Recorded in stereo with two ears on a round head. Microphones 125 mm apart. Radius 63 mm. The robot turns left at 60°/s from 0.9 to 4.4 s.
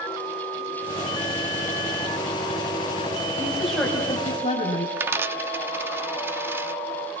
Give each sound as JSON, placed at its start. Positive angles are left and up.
{"t": 3.4, "sound": "a woman speaking", "azimuth_deg": -160, "distance_m": 8.5}
{"t": 5.0, "sound": "a dropped coin", "side_deg": -15, "distance_m": 0.8}